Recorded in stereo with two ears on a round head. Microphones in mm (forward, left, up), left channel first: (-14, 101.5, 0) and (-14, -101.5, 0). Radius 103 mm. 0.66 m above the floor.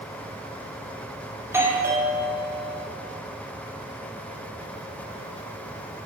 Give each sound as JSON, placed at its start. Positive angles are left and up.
{"t": 1.4, "sound": "a doorbell", "side_deg": -10, "distance_m": 2.0}